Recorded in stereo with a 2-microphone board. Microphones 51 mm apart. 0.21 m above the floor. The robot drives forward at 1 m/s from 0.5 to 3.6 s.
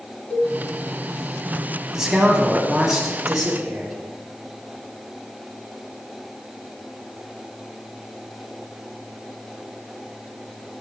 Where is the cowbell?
25° left (ahead or behind), 1.7 m.